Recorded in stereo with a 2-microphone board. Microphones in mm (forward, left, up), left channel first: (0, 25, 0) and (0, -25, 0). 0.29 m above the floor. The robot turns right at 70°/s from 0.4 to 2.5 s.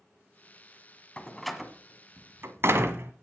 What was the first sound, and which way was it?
A door slam, 20° left (ahead or behind).